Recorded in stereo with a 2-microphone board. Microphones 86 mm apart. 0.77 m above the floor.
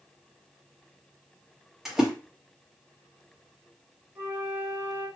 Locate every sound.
1.9 s a splash: 5° right (ahead or behind), 1.1 m
4.2 s a flute: 40° right (ahead or behind), 1.9 m